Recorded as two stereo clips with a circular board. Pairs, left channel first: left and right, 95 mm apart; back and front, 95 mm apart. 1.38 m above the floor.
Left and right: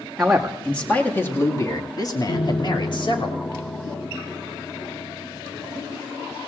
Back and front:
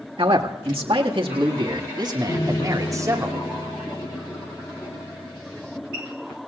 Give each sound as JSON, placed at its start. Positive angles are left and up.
{"t": 0.2, "sound": "a man speaking", "azimuth_deg": -5, "distance_m": 2.0}
{"t": 2.3, "sound": "a piano", "azimuth_deg": 130, "distance_m": 1.2}